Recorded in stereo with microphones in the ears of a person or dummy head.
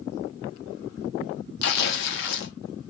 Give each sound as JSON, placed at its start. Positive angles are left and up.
{"t": 1.6, "sound": "tearing paper", "side_deg": 60, "distance_m": 0.6}